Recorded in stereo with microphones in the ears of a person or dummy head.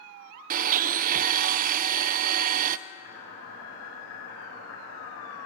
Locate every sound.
0.5 s a blender: 50° right (ahead or behind), 0.6 m
2.9 s boiling: 80° left, 7 m